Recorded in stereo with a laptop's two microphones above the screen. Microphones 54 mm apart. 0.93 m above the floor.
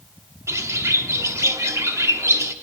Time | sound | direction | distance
0.5 | a bird | 65° right (ahead or behind) | 0.8 m